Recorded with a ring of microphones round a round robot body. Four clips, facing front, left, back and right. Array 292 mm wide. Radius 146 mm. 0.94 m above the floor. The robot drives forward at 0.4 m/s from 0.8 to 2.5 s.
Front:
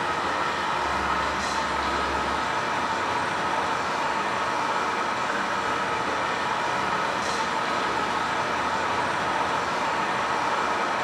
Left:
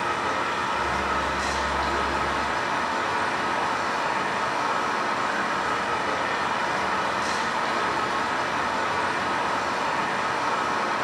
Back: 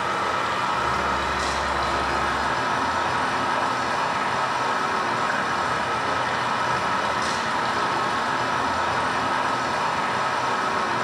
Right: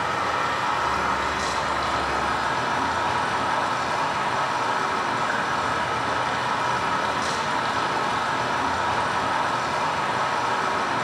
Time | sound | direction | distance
0.0 | running water | 145° right | 2.5 m